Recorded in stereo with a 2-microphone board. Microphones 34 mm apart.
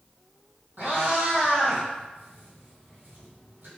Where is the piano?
No piano in this recording.